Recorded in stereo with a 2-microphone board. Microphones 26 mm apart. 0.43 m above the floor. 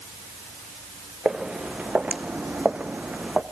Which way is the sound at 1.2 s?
30° right (ahead or behind).